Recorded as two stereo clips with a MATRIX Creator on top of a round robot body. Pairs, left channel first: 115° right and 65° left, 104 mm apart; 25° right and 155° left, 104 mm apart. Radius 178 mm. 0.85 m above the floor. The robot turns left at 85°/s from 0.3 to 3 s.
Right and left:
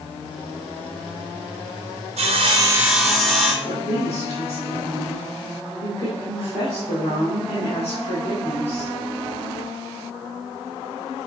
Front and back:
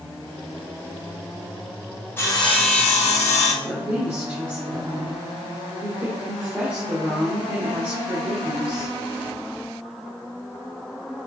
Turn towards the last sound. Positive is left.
turn(degrees=-135)